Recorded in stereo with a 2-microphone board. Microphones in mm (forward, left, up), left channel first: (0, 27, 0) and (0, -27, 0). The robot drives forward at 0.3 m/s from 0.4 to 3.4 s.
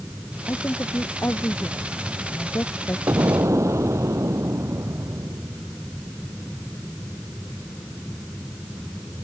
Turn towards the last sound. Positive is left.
turn(degrees=-65)  # may be behind; listen again after turning